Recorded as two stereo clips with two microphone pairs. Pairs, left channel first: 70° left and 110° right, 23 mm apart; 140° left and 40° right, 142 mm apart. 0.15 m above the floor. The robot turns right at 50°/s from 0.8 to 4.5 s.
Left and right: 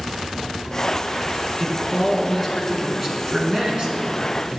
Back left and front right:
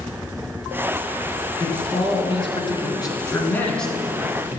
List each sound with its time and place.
1.6 s a man speaking: 110° left, 1.4 m; by 4.6 s 105° right, 1.4 m